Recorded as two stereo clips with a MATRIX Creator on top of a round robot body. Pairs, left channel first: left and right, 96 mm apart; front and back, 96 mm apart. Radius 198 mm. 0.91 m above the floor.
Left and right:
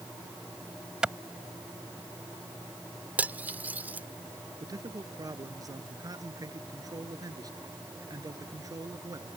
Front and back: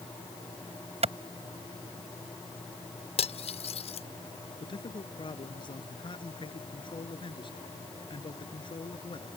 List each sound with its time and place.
1.0 s a clap: 170° right
3.2 s cutlery clinking: 15° right
4.6 s a man speaking: 35° right